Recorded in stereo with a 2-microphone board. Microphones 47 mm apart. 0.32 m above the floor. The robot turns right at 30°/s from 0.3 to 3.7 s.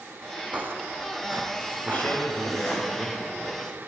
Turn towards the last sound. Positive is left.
turn(degrees=145)